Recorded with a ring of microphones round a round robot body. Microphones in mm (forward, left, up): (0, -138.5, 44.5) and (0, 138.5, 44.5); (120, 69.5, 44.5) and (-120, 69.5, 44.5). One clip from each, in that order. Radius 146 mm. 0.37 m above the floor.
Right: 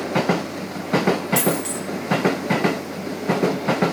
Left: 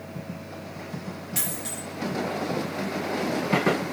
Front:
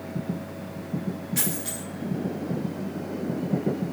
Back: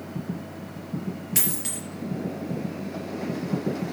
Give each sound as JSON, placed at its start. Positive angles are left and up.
{"t": 1.4, "sound": "a dropped coin", "azimuth_deg": -165, "distance_m": 4.5}